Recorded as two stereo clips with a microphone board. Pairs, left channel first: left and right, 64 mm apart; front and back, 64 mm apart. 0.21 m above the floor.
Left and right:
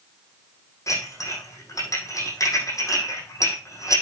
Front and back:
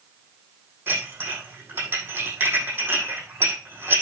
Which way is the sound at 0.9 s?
125° left.